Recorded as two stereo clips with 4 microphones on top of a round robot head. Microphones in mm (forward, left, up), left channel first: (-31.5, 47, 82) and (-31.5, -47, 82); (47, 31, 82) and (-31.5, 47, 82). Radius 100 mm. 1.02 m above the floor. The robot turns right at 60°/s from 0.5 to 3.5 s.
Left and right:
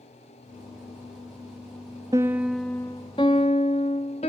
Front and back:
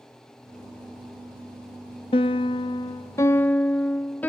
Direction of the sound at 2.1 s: 25° right.